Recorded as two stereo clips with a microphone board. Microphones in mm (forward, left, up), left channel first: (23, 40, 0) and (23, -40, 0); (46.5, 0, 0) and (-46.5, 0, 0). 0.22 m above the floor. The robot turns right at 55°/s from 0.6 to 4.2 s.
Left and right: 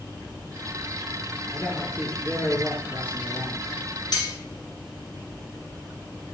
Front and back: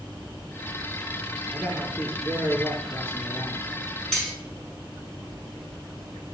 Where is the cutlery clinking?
80° left, 1.0 m; by 4.3 s 85° left, 1.0 m.